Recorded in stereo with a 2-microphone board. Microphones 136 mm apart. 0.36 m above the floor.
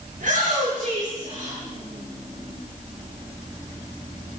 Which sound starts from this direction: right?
A shout, at 0.1 s.